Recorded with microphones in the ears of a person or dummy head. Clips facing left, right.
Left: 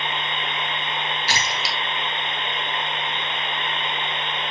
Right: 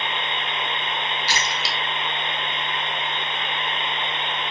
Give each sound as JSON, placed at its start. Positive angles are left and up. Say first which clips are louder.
{"t": 1.3, "sound": "a splash", "louder": "even", "side_deg": 50, "distance_m": 2.5}